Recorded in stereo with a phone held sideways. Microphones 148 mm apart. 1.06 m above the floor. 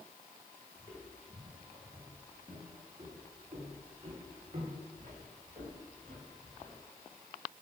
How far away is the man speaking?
I don't hear a man speaking.